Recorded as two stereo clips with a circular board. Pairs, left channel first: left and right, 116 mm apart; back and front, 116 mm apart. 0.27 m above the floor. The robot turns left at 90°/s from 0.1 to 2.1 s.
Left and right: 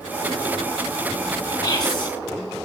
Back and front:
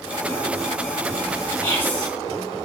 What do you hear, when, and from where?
1.6 s whispering: 135° left, 1.1 m; by 2.1 s 90° left, 1.1 m